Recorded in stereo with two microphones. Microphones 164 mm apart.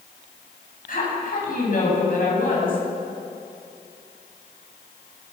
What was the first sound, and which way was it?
A woman speaking, 60° left (ahead or behind).